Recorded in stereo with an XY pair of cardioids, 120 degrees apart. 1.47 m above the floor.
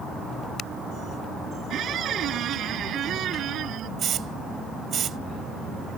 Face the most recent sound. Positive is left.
turn(degrees=-50)